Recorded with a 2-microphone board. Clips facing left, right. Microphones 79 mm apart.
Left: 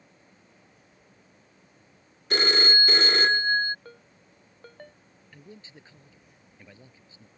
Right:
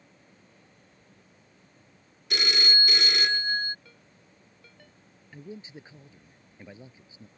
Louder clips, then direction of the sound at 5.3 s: Right 6 dB; 20° right (ahead or behind).